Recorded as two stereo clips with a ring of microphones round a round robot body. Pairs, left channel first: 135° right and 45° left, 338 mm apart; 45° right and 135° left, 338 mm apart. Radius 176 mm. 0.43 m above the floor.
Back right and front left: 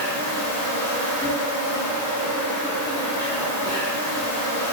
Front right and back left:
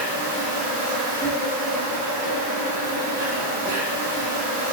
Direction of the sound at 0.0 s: 155° left.